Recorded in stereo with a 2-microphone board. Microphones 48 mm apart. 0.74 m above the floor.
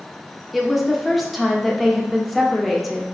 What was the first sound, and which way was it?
A woman speaking, centre (ahead or behind).